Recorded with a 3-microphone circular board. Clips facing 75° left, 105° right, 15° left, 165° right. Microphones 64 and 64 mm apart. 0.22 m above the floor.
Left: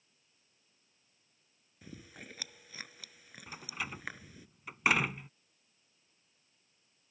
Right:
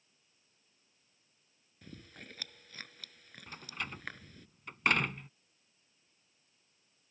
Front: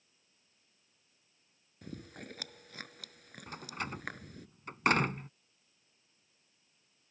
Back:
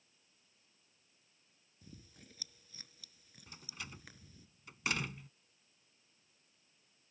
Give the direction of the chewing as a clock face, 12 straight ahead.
12 o'clock.